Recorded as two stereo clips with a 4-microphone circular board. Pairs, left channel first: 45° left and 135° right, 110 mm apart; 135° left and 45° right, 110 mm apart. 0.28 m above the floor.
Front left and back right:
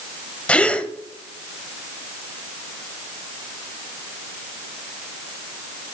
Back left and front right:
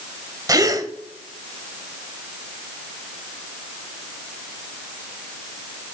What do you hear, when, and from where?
0.5 s a gasp: 25° right, 0.6 m